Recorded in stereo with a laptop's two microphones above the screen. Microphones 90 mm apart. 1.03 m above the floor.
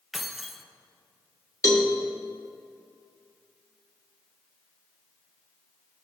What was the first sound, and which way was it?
Keys jangling, centre (ahead or behind).